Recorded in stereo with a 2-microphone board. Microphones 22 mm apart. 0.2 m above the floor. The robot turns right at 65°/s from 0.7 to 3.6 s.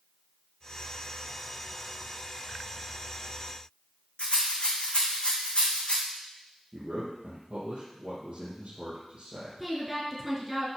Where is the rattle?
50° left (ahead or behind), 2.5 m.